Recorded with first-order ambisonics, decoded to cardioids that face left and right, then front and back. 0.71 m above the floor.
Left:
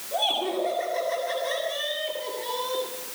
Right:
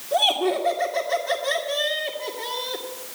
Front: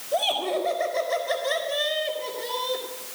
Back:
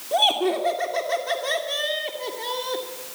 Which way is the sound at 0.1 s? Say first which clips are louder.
Right 5 dB, back 4 dB; 155° right.